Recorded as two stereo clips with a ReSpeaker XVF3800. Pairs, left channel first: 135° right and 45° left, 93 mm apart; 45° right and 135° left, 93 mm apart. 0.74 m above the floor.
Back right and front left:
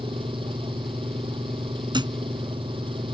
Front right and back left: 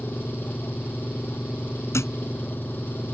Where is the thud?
15° left.